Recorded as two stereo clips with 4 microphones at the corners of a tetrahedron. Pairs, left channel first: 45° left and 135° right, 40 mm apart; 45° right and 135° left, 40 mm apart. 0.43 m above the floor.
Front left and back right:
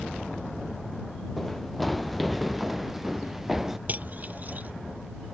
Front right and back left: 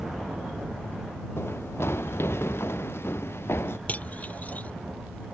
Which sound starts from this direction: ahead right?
Running footsteps, at 1.4 s.